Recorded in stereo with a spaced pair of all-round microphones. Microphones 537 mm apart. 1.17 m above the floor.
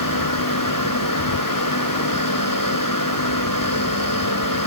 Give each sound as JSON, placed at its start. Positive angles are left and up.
{"t": 0.0, "sound": "a machine running", "side_deg": 35}